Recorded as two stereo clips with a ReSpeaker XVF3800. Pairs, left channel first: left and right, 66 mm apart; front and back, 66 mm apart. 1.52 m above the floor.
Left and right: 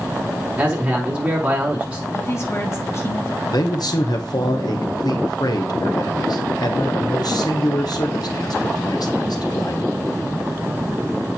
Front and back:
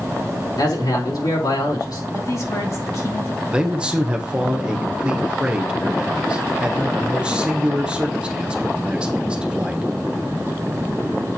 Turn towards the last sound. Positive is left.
turn(degrees=105)